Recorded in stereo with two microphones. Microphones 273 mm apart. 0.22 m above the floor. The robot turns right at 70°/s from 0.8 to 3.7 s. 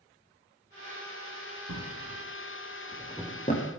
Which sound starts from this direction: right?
A drawer, at 1.7 s.